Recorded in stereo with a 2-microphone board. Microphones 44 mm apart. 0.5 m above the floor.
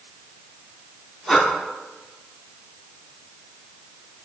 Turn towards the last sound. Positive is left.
turn(degrees=0)  # may be behind; listen again after turning